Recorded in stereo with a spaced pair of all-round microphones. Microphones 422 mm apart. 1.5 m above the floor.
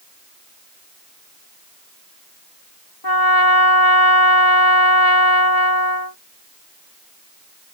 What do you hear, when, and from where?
3.0 s a trumpet: 60° left (ahead or behind)